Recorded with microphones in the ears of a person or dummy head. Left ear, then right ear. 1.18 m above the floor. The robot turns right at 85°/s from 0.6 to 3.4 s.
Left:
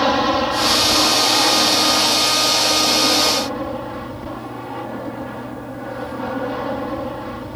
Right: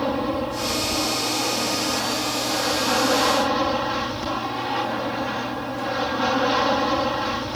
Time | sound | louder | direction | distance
0.0 | an aircraft | left 8 dB | 50° left | ?